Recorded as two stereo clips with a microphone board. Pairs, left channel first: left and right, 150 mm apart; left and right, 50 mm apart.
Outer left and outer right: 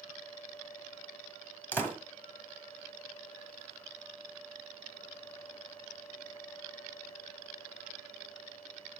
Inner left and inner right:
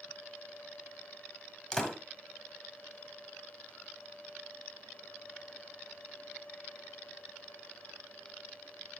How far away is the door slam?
About 1.3 m.